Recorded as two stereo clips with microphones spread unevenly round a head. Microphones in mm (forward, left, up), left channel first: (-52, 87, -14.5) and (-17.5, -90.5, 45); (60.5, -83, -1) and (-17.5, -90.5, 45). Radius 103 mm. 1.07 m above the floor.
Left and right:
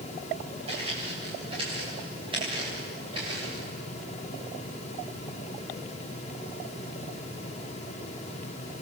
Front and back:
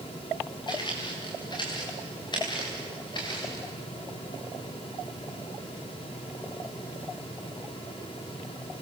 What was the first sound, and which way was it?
Footsteps, 20° right.